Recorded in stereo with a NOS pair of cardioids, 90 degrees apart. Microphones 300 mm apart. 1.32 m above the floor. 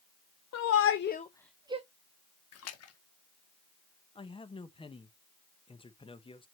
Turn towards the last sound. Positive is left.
turn(degrees=15)